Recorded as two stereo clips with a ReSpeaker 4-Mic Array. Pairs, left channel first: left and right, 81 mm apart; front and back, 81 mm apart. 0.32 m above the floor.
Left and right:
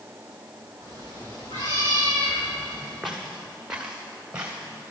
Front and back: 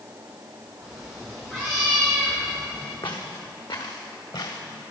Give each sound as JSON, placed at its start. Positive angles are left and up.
{"t": 0.8, "sound": "a cat meowing", "azimuth_deg": 85, "distance_m": 5.5}
{"t": 3.0, "sound": "footsteps", "azimuth_deg": 0, "distance_m": 2.0}